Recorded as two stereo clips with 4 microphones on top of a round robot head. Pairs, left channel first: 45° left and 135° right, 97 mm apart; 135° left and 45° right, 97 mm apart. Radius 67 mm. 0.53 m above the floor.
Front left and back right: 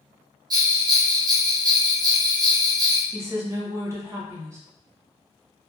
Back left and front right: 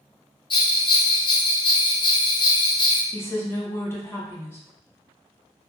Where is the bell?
175° left, 0.6 m.